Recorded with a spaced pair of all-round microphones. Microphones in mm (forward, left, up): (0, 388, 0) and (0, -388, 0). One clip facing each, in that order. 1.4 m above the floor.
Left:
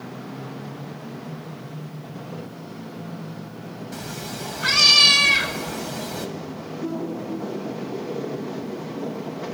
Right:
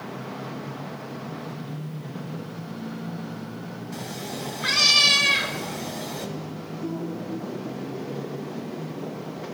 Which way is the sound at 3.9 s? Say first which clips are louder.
Right 1 dB; 45° left (ahead or behind).